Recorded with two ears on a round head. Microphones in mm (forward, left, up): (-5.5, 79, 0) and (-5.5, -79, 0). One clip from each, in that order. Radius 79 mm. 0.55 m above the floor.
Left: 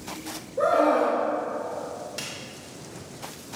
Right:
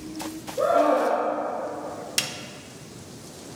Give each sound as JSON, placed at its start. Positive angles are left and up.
{"t": 0.6, "sound": "a scream", "side_deg": 60, "distance_m": 2.0}
{"t": 2.2, "sound": "a snare drum", "side_deg": -55, "distance_m": 0.5}